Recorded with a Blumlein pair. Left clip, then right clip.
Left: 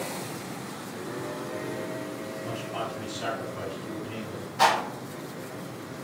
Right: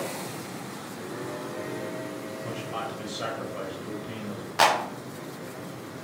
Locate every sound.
2.4 s a man speaking: 40° right, 1.9 m
4.6 s a clap: 35° right, 0.7 m